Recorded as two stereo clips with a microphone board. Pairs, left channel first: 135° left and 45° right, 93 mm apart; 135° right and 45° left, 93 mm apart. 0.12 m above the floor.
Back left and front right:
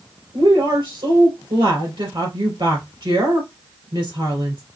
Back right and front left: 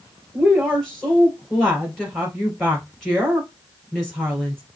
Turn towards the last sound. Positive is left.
turn(degrees=-55)